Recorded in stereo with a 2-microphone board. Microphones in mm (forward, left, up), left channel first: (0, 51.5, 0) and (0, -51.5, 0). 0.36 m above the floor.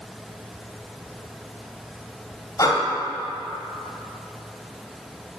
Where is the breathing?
35° left (ahead or behind), 1.5 m.